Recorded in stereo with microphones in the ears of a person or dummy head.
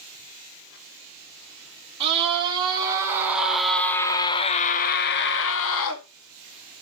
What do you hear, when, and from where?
2.0 s a scream: 35° right (ahead or behind), 2 m; by 6.0 s 75° left (ahead or behind), 1.7 m